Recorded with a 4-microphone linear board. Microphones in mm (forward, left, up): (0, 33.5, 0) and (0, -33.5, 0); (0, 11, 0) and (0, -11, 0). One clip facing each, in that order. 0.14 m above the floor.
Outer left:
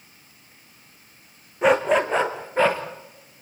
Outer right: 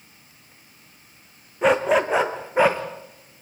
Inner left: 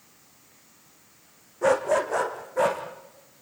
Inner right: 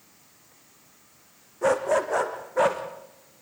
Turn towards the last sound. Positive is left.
turn(degrees=-15)  # may be behind; listen again after turning